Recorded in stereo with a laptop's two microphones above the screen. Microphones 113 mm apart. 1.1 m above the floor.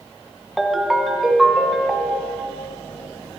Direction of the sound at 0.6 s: Centre (ahead or behind).